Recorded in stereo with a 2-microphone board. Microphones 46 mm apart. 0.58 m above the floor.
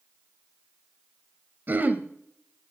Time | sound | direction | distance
1.7 | throat clearing | 45° right (ahead or behind) | 1.3 m